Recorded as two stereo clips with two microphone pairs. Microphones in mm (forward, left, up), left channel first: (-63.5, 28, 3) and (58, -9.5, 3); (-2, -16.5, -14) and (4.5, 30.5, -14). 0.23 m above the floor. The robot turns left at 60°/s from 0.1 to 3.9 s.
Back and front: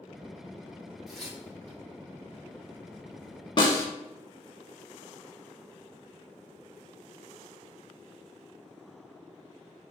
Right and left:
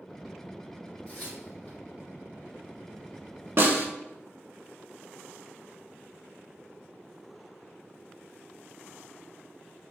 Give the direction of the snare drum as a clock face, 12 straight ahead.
8 o'clock.